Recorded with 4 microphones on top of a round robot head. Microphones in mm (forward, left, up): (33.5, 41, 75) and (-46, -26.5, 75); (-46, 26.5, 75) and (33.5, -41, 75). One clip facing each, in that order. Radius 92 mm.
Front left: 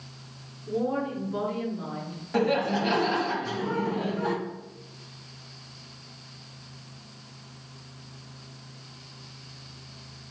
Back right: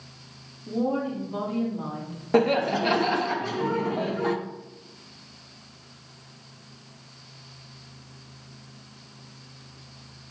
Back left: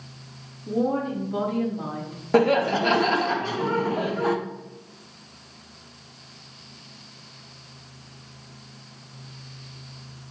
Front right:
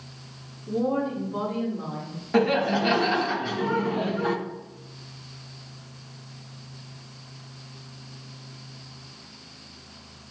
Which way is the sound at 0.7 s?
165° left.